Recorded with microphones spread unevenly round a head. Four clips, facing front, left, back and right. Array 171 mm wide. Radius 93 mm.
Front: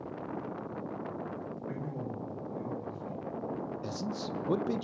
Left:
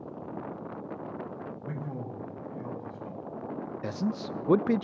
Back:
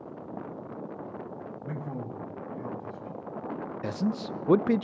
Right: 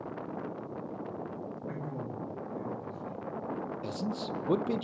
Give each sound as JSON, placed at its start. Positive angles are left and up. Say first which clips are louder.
{"t": 1.6, "sound": "a man speaking", "louder": "left 1 dB, back 3 dB", "azimuth_deg": 145, "distance_m": 9.0}
{"t": 3.8, "sound": "a man speaking", "louder": "left 6 dB, back 6 dB", "azimuth_deg": 165, "distance_m": 0.7}